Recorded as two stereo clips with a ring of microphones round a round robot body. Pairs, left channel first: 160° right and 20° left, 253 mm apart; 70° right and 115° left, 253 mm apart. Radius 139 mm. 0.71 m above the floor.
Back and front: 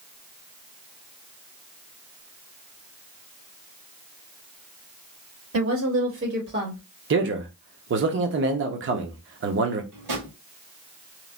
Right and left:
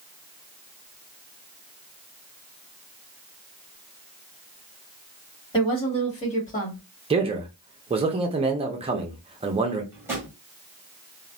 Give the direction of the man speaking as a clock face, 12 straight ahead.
10 o'clock.